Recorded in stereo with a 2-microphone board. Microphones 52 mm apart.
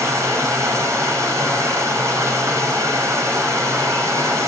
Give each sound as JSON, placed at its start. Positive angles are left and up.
{"t": 0.0, "sound": "running water", "side_deg": -80, "distance_m": 5.5}